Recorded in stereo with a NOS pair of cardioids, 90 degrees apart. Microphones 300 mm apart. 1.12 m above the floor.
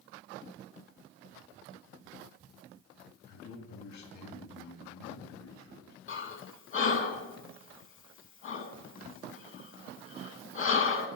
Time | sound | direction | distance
3.3 | a man speaking | 65° left | 2 m
6.1 | breathing | 45° left | 1.1 m